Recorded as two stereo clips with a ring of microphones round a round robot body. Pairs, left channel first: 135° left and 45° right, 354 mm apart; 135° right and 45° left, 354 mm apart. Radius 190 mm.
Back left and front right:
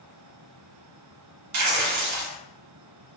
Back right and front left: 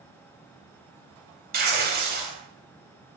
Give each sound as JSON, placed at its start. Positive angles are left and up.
{"t": 1.5, "sound": "tearing paper", "azimuth_deg": -15, "distance_m": 0.7}